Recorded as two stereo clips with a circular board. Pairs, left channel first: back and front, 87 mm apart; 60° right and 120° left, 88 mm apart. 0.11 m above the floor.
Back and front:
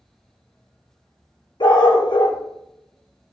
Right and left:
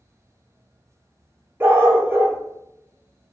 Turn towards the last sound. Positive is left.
turn(degrees=180)